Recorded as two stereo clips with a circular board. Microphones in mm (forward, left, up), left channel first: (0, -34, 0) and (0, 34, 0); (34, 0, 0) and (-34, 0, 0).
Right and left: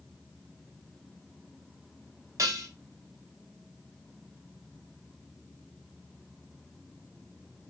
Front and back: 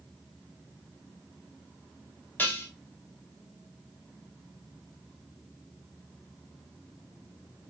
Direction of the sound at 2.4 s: 60° left.